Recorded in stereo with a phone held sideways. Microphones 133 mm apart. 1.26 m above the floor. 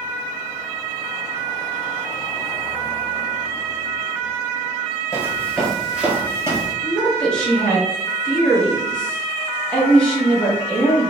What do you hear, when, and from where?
5.1 s footsteps: 20° left (ahead or behind), 1.3 m; by 6.7 s 25° right (ahead or behind), 1.7 m
6.8 s a woman speaking: 5° left (ahead or behind), 1.4 m